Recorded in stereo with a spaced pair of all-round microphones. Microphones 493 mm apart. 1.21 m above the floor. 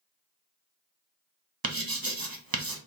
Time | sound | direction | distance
1.6 | writing | 40° right (ahead or behind) | 0.8 m